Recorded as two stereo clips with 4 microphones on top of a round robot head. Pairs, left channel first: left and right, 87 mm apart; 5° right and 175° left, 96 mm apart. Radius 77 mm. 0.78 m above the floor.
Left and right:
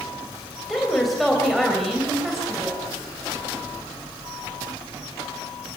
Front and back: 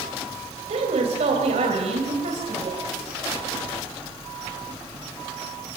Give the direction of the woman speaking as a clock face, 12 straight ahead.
6 o'clock.